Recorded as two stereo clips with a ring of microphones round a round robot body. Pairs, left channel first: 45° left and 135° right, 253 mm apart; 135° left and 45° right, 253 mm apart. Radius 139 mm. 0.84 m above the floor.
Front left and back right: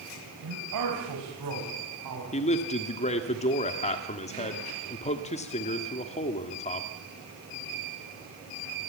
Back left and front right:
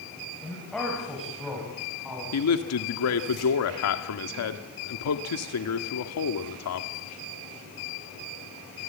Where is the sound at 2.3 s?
110° left, 1.6 m.